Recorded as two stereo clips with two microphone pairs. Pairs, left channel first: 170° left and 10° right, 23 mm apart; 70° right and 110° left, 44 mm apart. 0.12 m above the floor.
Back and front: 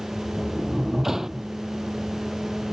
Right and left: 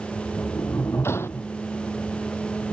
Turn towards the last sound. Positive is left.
turn(degrees=-75)